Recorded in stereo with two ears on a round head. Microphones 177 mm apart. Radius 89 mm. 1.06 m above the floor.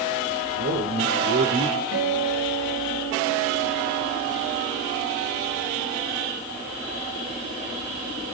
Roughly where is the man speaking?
Right.